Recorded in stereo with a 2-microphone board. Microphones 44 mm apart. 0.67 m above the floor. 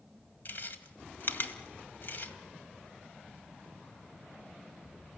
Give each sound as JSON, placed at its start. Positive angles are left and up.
{"t": 0.5, "sound": "chewing", "side_deg": 50, "distance_m": 2.0}